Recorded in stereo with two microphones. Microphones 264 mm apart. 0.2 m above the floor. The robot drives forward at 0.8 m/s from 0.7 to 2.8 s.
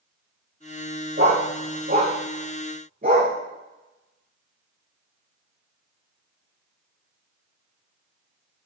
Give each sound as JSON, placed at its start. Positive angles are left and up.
{"t": 1.2, "sound": "a dog barking", "side_deg": -40, "distance_m": 4.5}